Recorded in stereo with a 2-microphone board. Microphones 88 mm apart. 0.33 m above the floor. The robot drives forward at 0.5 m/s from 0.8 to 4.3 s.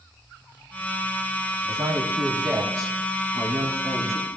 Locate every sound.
1.7 s a woman speaking: 50° right (ahead or behind), 2.5 m; by 4.3 s 35° right (ahead or behind), 3 m